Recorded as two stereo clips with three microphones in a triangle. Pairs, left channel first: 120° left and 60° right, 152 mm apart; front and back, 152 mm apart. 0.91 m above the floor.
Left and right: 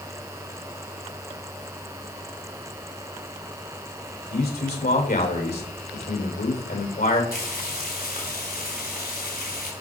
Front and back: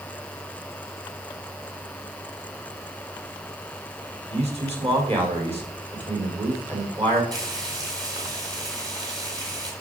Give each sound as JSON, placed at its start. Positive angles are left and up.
{"t": 4.3, "sound": "a man speaking", "azimuth_deg": 130, "distance_m": 3.5}
{"t": 7.3, "sound": "frying", "azimuth_deg": 115, "distance_m": 3.5}